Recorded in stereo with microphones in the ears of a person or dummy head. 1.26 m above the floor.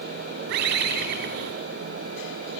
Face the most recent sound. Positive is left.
turn(degrees=-60)  # may be behind; listen again after turning